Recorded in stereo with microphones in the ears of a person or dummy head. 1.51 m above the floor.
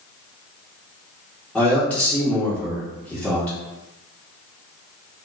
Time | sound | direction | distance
1.6 | a man speaking | 10° left (ahead or behind) | 1.0 m